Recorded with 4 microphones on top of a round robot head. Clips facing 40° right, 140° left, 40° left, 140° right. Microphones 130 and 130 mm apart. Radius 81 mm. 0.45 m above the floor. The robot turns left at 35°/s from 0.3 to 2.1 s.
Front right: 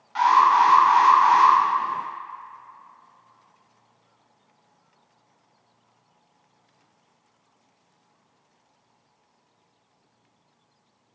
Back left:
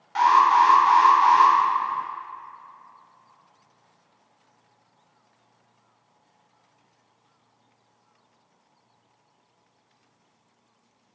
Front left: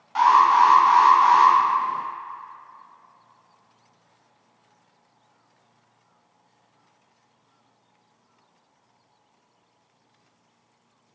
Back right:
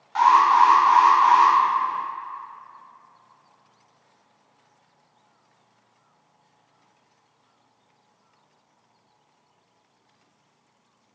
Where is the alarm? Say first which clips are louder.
Even, even; 120° left, 1.5 m; by 1.5 s 75° left, 1.5 m.